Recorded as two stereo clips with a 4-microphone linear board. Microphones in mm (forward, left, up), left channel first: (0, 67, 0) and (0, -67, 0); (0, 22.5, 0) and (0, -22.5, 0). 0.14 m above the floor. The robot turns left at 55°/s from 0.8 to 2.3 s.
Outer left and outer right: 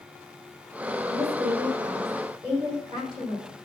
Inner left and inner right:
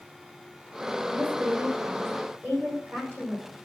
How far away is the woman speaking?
About 8 m.